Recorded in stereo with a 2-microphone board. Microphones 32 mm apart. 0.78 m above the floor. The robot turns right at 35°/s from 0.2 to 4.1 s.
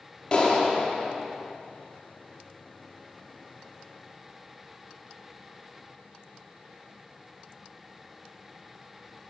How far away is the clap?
About 1.2 m.